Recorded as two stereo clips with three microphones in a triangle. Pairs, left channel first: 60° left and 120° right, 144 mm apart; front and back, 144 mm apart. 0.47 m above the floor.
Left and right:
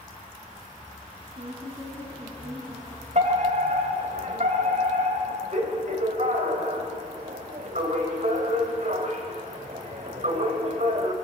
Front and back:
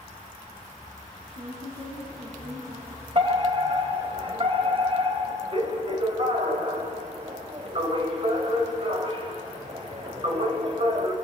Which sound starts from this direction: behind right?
A fire alarm, at 3.1 s.